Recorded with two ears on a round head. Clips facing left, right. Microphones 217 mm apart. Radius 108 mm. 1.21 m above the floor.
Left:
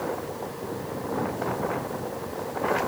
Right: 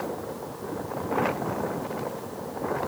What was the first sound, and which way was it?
Only background noise.